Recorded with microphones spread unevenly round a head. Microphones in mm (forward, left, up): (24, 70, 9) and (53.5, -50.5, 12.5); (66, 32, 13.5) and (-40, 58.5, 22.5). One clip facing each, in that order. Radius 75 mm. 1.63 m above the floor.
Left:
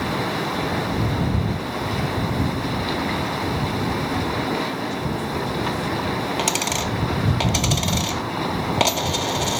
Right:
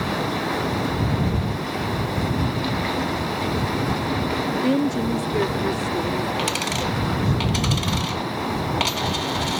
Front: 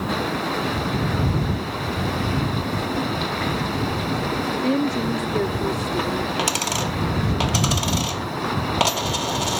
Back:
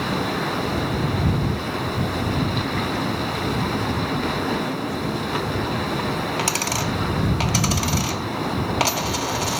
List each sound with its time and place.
4.6 s a woman speaking: 55° right; by 7.4 s 25° right
6.4 s a dropped coin: 60° left